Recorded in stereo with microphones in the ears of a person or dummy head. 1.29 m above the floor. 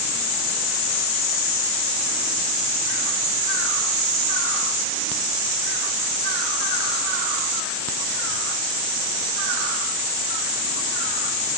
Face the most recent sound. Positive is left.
No sound to turn to.